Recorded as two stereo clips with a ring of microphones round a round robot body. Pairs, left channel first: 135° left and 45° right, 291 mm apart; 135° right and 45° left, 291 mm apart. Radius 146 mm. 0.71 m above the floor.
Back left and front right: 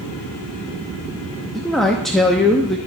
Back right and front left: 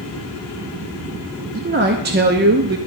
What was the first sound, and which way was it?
A man speaking, 45° left.